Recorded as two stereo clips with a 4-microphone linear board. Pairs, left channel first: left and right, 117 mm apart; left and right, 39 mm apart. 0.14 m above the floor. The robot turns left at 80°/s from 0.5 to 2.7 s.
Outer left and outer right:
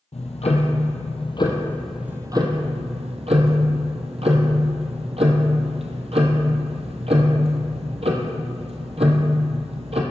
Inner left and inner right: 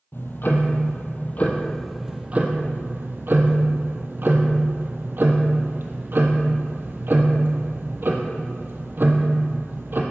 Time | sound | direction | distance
0.1 | ticking | 110° left | 1.1 m